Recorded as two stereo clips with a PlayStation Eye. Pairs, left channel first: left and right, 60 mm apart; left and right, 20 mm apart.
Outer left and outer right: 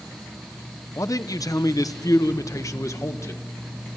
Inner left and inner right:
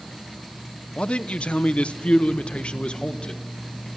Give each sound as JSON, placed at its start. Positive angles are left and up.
{"t": 1.0, "sound": "a man speaking", "side_deg": 60, "distance_m": 0.9}